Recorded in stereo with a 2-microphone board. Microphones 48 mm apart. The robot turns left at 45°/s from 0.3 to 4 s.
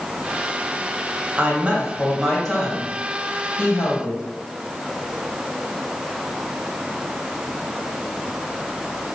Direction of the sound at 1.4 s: 140° right.